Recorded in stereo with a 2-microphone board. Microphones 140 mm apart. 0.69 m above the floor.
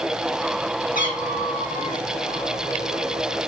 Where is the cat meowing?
80° left, 3 m; by 2.0 s 70° left (ahead or behind), 3 m.